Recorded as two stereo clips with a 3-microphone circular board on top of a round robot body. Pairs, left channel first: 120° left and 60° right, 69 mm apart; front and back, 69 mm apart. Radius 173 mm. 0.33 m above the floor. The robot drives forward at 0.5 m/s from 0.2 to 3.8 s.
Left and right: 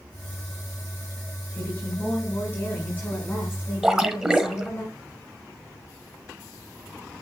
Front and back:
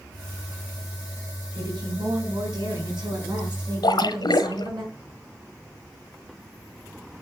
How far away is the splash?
About 1.2 m.